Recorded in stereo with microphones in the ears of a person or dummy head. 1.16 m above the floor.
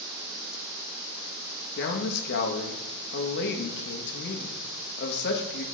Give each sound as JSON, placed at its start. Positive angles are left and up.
{"t": 1.8, "sound": "a man speaking", "side_deg": 60, "distance_m": 1.1}